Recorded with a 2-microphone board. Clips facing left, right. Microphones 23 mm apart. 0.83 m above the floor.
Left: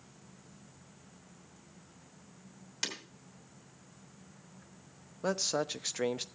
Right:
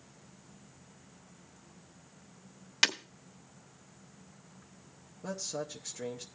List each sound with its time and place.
2.8 s breaking glass: 45° right (ahead or behind), 1.1 m
5.2 s a man speaking: 45° left (ahead or behind), 0.6 m